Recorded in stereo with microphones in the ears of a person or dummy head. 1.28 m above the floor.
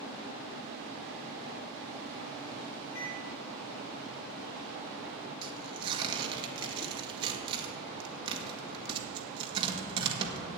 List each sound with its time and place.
3.0 s a microwave: 70° left (ahead or behind), 1.7 m
5.4 s tearing paper: 25° right (ahead or behind), 1.6 m